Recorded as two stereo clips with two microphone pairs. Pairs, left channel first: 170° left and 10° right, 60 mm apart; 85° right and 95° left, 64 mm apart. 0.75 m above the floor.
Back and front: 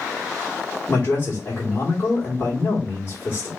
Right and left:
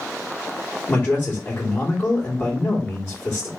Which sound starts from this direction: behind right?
A man speaking, at 0.9 s.